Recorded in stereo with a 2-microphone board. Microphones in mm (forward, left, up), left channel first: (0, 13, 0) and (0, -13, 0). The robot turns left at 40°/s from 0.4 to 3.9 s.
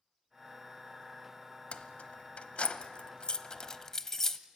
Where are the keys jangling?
50° left (ahead or behind), 0.9 m; by 4.4 s 20° left (ahead or behind), 0.9 m.